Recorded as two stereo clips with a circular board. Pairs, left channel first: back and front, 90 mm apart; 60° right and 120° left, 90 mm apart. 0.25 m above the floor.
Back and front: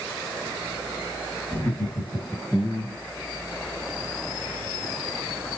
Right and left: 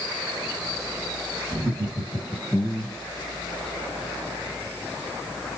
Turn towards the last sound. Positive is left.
turn(degrees=-55)